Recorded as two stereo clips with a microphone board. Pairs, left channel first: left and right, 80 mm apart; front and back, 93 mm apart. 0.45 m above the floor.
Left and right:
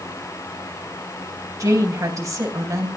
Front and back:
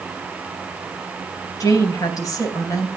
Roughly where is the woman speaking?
Ahead right.